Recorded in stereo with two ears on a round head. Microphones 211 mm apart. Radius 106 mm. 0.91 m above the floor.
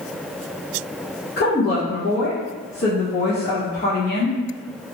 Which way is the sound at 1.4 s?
45° left (ahead or behind).